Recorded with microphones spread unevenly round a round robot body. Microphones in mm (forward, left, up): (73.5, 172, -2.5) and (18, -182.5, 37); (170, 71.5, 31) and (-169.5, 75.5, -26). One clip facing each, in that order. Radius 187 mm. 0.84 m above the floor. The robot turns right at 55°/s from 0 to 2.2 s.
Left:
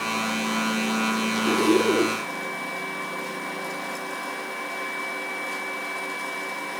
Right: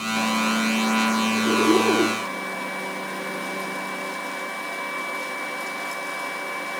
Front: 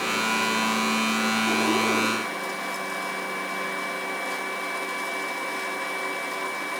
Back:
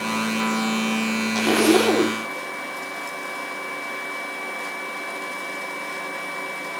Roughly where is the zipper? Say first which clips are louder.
Even, back 11 dB; behind left.